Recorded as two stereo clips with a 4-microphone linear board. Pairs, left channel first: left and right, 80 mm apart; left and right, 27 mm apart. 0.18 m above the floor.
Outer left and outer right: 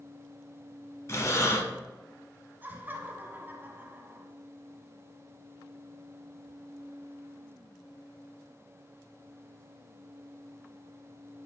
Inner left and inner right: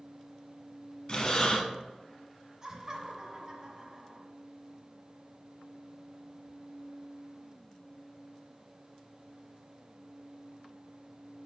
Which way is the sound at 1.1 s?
40° left (ahead or behind).